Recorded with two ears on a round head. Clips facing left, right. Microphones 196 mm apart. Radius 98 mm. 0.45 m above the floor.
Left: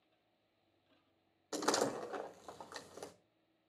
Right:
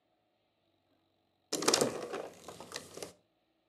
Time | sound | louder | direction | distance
1.5 | a door slam | right 4 dB | 35° right (ahead or behind) | 0.7 m